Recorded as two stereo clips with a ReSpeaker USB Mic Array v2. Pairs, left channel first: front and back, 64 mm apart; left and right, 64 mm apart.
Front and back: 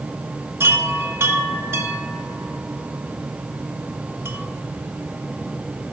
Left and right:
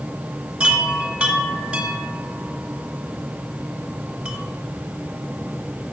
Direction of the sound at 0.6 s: 150° right.